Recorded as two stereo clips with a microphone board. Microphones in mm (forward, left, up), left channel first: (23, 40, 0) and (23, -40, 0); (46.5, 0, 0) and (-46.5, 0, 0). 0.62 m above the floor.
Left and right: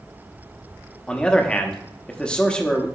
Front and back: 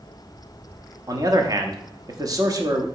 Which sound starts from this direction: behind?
A man speaking, at 1.1 s.